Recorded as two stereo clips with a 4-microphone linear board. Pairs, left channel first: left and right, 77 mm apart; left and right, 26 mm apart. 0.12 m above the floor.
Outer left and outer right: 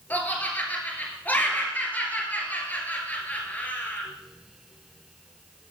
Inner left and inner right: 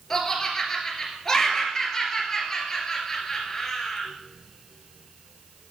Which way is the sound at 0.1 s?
20° left (ahead or behind).